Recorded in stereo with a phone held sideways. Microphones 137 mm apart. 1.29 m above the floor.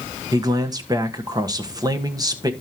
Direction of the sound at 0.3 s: 25° right (ahead or behind).